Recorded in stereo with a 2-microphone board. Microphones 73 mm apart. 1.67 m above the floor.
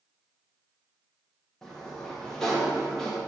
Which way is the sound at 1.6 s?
10° left (ahead or behind).